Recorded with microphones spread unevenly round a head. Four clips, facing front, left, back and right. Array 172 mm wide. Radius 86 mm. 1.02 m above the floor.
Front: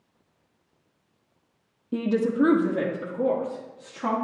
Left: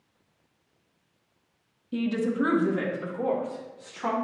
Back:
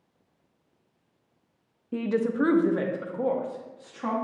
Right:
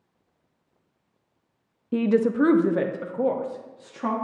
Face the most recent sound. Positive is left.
turn(degrees=-80)